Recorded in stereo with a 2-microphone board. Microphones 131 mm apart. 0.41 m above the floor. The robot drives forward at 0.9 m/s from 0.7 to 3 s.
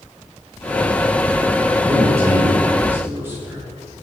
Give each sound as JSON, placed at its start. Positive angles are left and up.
{"t": 1.8, "sound": "a man speaking", "side_deg": -20, "distance_m": 4.5}